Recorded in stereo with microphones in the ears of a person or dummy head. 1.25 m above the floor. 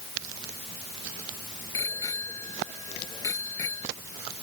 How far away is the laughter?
I don't hear laughter.